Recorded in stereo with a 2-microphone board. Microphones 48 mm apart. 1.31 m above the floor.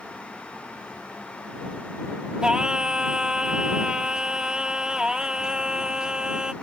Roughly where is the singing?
Centre.